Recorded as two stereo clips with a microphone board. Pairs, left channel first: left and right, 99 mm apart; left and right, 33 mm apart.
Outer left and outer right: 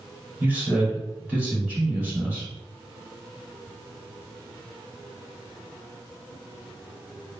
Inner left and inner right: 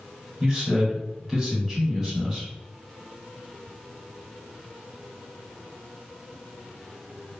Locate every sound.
0.4 s a man speaking: 15° right (ahead or behind), 1.3 m